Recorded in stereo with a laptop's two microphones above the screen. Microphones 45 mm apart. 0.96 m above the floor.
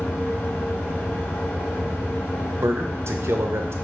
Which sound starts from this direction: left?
A fan, at 0.0 s.